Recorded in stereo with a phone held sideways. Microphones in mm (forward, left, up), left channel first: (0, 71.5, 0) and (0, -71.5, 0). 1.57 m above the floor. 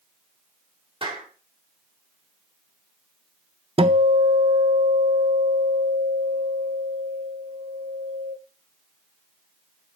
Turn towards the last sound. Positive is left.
turn(degrees=-40)  # may be behind; listen again after turning